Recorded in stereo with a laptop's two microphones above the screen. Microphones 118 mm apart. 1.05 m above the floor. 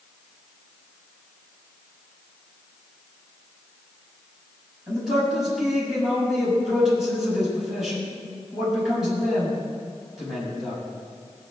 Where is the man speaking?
Centre (ahead or behind), 7 m.